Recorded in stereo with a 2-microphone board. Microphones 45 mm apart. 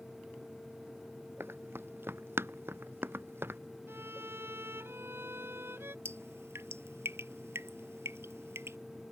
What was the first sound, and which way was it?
Running footsteps, 65° right (ahead or behind).